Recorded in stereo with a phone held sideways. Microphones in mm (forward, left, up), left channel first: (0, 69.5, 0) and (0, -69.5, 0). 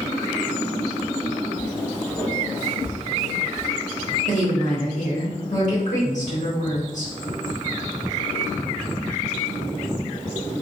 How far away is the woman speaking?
About 1.2 m.